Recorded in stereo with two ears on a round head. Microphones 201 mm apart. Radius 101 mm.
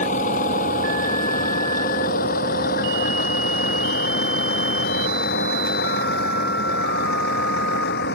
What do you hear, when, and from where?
0.0 s a vehicle: 35° left (ahead or behind); by 8.1 s 50° left (ahead or behind)